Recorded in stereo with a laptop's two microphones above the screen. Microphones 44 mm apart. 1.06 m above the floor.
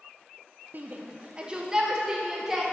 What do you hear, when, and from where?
0.7 s a shout: 40° right (ahead or behind), 0.8 m; by 2.6 s 10° right (ahead or behind), 2 m